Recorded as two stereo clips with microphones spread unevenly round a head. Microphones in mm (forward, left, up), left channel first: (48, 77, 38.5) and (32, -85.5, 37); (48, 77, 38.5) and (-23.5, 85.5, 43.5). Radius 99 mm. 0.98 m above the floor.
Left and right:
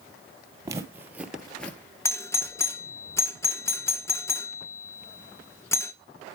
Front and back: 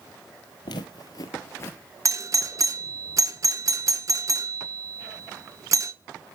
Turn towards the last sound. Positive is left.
turn(degrees=155)